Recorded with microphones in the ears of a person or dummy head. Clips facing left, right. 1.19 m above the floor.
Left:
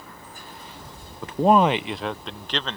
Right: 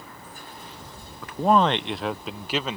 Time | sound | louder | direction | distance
1.2 | a man speaking | left 2 dB | 20° left (ahead or behind) | ?